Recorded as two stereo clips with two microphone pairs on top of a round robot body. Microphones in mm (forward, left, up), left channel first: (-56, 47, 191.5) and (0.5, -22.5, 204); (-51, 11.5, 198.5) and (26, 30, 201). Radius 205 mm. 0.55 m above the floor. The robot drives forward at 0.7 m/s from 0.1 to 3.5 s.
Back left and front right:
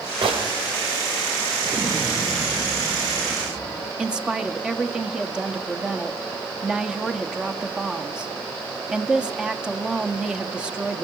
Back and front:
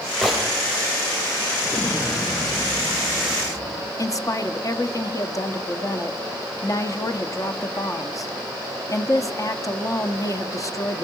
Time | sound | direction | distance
0.2 | a gunshot | 75° right | 3 m
1.6 | an explosion | 120° right | 1.5 m
4.0 | a woman speaking | 135° right | 1.8 m